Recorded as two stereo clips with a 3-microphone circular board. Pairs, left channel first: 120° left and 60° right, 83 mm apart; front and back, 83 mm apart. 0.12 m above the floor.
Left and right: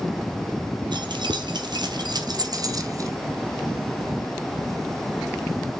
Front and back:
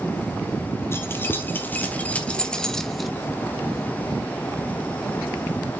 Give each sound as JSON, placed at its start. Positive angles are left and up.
{"t": 0.9, "sound": "keys jangling", "azimuth_deg": -60, "distance_m": 2.5}